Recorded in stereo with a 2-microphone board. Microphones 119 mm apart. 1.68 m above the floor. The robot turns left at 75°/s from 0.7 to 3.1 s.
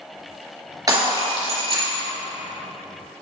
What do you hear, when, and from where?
0.9 s breaking glass: 40° right, 2.5 m; by 2.1 s 130° right, 2.5 m